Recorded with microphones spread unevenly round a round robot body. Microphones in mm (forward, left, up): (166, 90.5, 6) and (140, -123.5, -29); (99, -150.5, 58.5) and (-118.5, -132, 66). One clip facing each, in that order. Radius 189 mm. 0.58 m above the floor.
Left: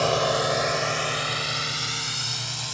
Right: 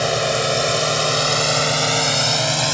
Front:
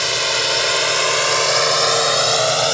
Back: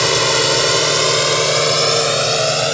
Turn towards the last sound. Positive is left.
turn(degrees=-120)